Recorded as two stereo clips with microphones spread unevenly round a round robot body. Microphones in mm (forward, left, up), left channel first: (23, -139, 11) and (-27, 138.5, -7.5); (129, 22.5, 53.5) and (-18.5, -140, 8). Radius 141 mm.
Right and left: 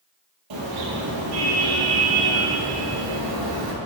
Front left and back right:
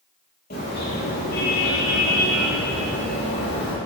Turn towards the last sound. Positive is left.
turn(degrees=95)